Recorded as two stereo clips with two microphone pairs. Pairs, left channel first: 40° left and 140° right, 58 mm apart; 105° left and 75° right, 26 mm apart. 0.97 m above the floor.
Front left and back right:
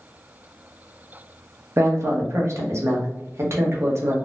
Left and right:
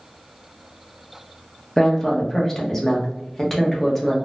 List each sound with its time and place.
1.8 s a woman speaking: 175° right, 0.8 m